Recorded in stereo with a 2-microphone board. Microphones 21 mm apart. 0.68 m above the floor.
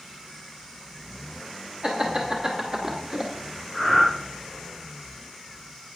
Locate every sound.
1.8 s laughter: 40° right (ahead or behind), 1.4 m; by 3.3 s 15° right (ahead or behind), 1.2 m
3.7 s breathing: 20° right (ahead or behind), 3 m